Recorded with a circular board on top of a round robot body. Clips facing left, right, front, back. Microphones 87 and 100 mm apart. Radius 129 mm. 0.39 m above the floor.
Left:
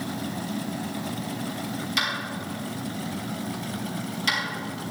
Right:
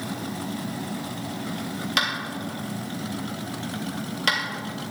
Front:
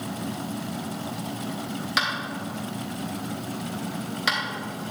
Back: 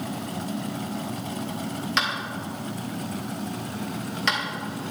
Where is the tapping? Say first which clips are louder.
Right 4 dB, front 1 dB; 85° right, 2.5 m.